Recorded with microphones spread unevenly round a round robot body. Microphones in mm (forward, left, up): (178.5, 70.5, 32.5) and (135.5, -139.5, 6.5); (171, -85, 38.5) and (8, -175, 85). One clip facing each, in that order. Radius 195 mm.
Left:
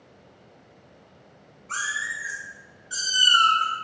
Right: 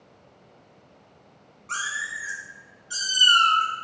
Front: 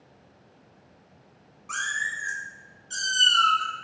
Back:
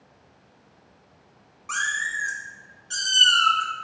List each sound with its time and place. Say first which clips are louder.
1.7 s a cat meowing: even, back 3 dB; 140° right, 0.7 m